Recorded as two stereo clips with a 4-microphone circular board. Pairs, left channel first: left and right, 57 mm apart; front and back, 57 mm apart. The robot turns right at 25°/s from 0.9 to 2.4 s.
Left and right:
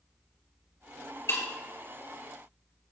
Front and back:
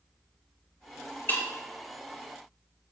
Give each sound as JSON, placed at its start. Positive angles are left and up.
{"t": 1.3, "sound": "breaking glass", "azimuth_deg": 55, "distance_m": 3.0}